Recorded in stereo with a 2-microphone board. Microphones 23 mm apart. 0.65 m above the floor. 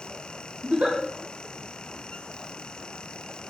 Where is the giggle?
50° right (ahead or behind), 0.6 m.